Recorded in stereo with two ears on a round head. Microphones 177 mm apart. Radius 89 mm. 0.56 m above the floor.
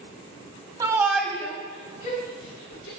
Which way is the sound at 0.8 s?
20° right (ahead or behind).